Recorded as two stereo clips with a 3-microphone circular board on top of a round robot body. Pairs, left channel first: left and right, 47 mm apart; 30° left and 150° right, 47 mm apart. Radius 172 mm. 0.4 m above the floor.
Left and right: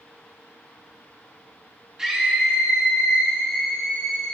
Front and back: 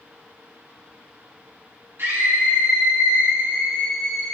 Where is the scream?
165° right, 2.5 m; by 4.3 s 165° left, 3.5 m.